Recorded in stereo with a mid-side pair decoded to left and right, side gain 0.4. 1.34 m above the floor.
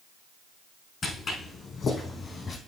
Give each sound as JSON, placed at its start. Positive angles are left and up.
{"t": 1.0, "sound": "footsteps", "azimuth_deg": 55, "distance_m": 4.5}